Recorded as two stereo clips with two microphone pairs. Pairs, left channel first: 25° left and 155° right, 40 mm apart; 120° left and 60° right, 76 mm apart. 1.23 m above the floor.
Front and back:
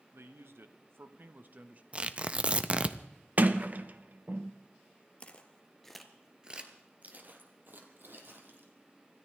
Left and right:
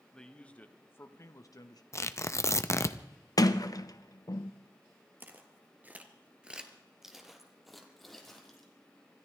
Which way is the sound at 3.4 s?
160° left.